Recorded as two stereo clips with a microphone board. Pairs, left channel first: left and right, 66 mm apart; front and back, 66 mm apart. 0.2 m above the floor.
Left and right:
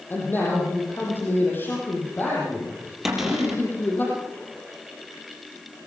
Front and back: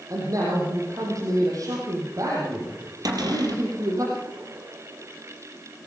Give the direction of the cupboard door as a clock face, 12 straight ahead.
6 o'clock.